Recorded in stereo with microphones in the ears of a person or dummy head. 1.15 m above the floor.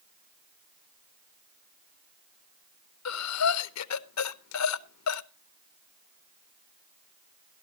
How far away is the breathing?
About 0.7 m.